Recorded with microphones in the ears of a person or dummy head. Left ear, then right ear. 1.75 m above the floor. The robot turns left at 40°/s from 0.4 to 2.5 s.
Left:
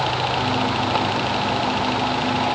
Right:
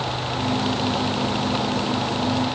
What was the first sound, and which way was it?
Only background noise.